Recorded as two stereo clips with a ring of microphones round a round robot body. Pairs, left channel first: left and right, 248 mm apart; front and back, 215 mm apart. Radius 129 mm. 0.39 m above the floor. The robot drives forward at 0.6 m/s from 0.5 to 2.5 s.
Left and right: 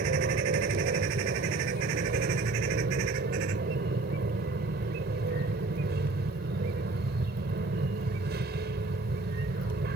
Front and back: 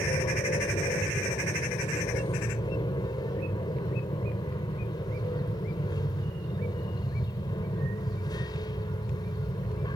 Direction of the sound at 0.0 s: 60° right.